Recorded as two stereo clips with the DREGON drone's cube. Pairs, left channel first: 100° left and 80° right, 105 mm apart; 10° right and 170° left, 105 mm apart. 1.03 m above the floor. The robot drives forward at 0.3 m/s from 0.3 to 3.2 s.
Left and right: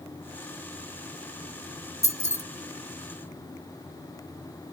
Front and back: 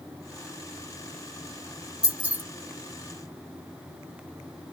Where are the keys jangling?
90° left, 0.7 m; by 2.4 s 100° left, 0.7 m.